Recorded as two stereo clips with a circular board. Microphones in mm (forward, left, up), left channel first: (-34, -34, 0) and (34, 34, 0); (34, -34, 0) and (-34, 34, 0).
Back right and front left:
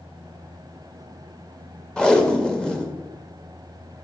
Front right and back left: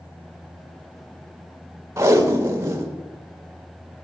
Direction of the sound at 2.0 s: 150° left.